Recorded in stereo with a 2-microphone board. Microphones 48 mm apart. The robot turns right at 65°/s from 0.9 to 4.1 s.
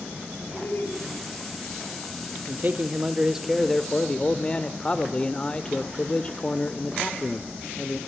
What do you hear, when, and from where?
0.5 s laughter: 50° left (ahead or behind), 3.5 m; by 1.0 s 45° left (ahead or behind), 3.5 m
2.5 s a man speaking: 75° right, 1.0 m; by 8.0 s 35° left, 1.0 m